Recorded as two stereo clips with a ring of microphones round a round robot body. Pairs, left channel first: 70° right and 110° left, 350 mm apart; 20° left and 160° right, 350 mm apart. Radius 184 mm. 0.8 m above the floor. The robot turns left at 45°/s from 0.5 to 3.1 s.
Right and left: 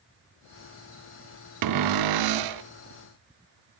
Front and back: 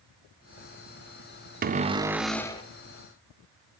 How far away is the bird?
No bird in this recording.